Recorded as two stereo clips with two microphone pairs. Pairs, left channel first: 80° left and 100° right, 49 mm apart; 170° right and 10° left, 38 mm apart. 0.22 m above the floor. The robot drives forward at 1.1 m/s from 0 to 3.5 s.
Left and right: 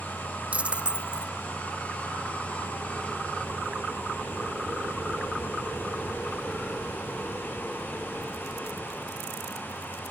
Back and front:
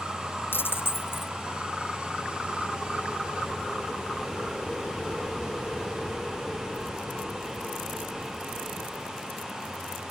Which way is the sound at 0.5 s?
165° right.